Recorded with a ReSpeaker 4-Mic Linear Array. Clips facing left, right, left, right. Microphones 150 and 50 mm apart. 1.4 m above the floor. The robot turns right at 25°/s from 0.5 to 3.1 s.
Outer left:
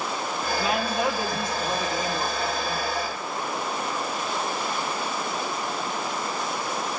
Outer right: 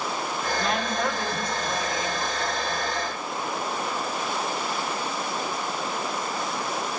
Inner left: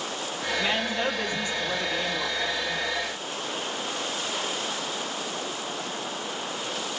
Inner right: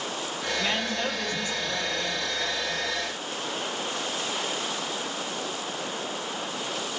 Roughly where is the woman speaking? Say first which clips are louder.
Outer left 2 dB, inner left 2 dB; ahead.